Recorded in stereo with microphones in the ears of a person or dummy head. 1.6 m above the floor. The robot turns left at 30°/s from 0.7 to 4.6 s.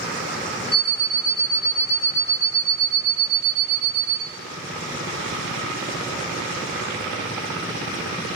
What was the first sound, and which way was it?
An alarm clock, straight ahead.